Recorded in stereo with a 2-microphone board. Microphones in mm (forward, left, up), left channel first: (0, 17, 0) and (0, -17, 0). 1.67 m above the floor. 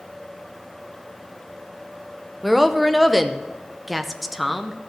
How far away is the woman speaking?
About 0.6 m.